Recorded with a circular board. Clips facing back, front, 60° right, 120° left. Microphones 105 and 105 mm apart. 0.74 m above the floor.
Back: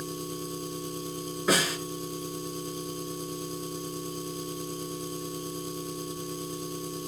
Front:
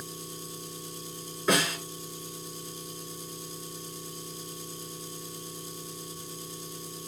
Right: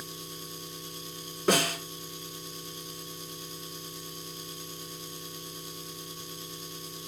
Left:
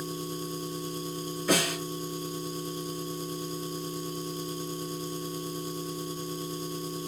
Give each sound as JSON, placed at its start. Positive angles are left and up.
{"t": 0.0, "sound": "an engine running", "azimuth_deg": 165, "distance_m": 1.3}
{"t": 1.5, "sound": "a snare drum", "azimuth_deg": -95, "distance_m": 6.5}